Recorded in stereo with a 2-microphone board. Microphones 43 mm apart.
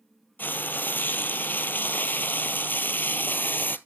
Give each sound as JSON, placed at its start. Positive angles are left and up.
{"t": 0.4, "sound": "frying", "side_deg": 55, "distance_m": 0.7}